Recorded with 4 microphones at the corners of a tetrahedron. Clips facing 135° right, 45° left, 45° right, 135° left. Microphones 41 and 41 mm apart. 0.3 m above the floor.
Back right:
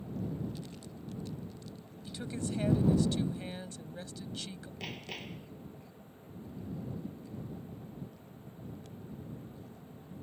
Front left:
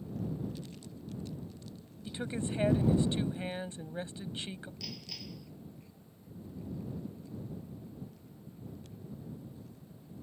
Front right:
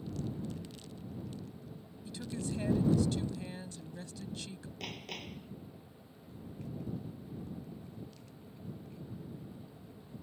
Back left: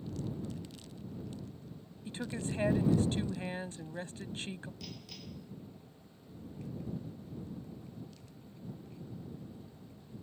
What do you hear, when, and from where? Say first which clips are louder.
2.0 s a woman speaking: front left 2 dB, back left 1 dB; 100° left
4.8 s hammering: back right 3 dB, front right 5 dB; 85° right